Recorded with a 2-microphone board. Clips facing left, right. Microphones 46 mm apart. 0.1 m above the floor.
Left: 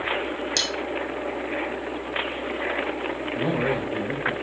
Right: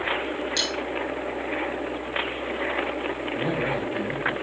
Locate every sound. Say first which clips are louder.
0.6 s cutlery clinking: left 1 dB; 65° left (ahead or behind), 3 m
3.4 s a man speaking: left 3 dB; 45° left (ahead or behind), 6.5 m